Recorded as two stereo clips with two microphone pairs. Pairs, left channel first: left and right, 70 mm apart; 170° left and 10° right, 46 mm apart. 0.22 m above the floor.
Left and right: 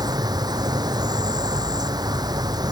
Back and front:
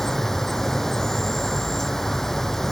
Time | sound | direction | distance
0.0 | an insect | 105° right | ?